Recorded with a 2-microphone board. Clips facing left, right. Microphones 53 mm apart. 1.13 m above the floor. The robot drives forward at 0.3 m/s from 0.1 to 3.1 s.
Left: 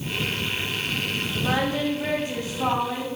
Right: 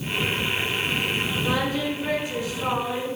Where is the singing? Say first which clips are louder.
Left 3 dB; 50° left (ahead or behind), 4.5 m; by 3.1 s 45° left (ahead or behind), 4.5 m.